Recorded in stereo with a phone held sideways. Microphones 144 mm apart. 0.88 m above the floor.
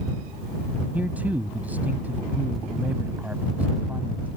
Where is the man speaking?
10° right (ahead or behind).